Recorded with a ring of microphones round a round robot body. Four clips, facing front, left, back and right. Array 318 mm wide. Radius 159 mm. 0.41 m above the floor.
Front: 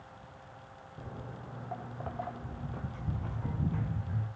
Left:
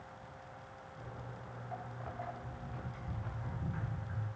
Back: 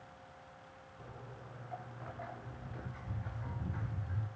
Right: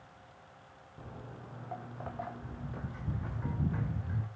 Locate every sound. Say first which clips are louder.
1.0 s footsteps: right 2 dB, front 7 dB; 20° right, 3.5 m; by 4.3 s 55° right, 3 m